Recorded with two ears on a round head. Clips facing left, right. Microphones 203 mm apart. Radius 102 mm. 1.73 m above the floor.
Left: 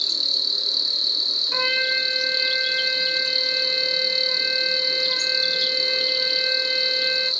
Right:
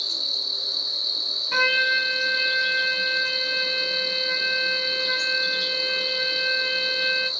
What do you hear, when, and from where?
0.0 s an insect: 35° left (ahead or behind), 1.3 m
1.5 s a trumpet: 60° right (ahead or behind), 2.5 m